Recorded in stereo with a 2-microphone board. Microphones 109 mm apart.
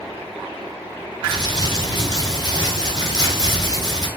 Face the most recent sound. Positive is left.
turn(degrees=40)  # may be behind; listen again after turning